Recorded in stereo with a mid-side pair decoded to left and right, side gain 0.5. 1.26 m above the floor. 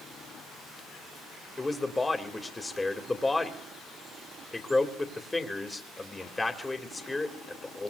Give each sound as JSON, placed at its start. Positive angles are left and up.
{"t": 1.6, "sound": "a man speaking", "azimuth_deg": 20, "distance_m": 2.0}